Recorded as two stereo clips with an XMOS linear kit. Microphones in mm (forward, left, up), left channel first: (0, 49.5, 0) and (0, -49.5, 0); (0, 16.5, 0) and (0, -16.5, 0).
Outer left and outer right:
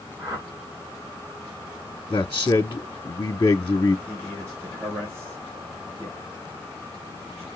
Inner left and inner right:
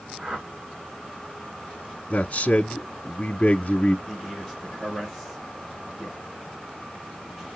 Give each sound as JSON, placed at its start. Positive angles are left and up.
{"t": 0.2, "sound": "a whoosh", "side_deg": -35, "distance_m": 5.0}
{"t": 2.1, "sound": "a man speaking", "side_deg": 35, "distance_m": 1.0}
{"t": 4.1, "sound": "a man speaking", "side_deg": -25, "distance_m": 5.5}